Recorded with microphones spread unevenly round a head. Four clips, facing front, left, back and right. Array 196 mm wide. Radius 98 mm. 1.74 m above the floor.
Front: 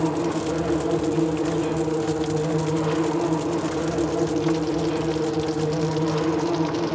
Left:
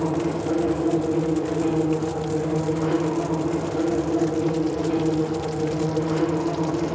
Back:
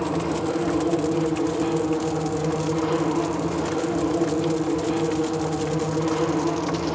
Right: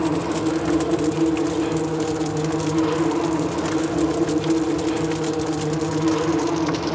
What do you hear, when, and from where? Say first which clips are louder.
0.0 s an insect: right 2 dB, front 1 dB; 160° left, 4 m